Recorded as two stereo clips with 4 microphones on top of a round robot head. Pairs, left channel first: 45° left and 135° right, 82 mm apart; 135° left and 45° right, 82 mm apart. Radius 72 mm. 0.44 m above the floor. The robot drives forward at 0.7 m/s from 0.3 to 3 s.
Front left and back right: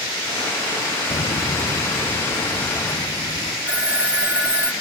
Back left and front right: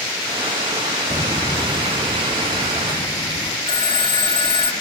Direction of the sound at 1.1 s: 65° left.